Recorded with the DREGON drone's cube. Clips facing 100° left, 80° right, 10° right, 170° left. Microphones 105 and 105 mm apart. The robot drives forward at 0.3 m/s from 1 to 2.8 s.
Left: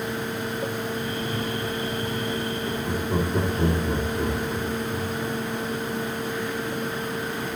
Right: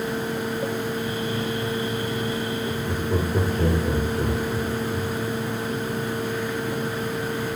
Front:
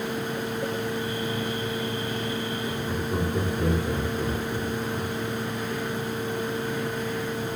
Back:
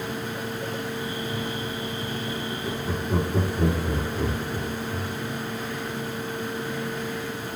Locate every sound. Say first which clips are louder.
2.6 s laughter: right 1 dB, even; 145° left, 2 m